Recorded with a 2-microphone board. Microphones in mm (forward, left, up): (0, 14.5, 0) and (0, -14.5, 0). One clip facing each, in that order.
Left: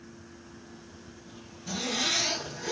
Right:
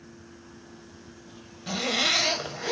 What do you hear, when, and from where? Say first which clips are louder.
1.7 s a zipper: right 5 dB; 65° right (ahead or behind), 1.4 m